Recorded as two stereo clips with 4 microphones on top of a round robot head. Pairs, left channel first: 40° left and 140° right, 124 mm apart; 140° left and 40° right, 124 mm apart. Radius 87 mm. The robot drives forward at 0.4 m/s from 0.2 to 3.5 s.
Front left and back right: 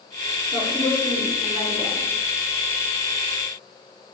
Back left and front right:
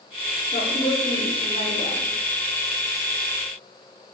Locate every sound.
0.5 s a woman speaking: 150° left, 3.5 m; by 2.0 s 155° left, 4 m